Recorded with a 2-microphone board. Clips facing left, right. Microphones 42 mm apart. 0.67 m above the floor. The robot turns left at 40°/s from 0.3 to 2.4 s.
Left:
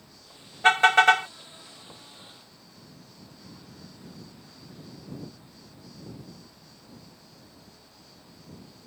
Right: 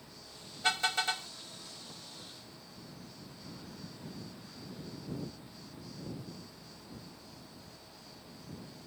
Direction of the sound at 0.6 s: 45° left (ahead or behind).